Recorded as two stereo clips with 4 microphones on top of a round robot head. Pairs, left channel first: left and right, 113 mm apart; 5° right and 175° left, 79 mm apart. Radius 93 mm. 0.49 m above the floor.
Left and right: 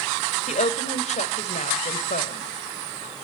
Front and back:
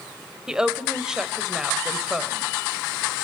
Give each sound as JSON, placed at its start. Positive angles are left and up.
{"t": 0.5, "sound": "a woman speaking", "azimuth_deg": 95, "distance_m": 2.0}